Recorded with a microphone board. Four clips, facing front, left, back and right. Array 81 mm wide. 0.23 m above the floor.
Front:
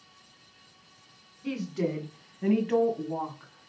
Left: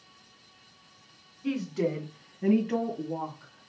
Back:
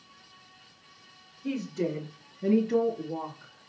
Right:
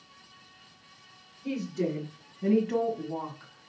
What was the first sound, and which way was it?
A woman speaking, 60° left.